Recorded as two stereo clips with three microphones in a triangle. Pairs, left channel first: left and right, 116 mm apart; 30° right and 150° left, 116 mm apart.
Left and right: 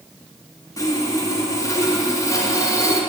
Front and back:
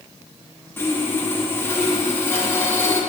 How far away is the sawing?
About 0.8 m.